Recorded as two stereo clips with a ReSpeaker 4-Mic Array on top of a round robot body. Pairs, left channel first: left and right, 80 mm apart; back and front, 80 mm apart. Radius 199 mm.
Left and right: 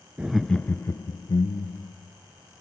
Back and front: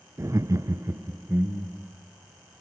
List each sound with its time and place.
0.2 s laughter: 25° right, 0.7 m; by 1.9 s 70° left, 1.3 m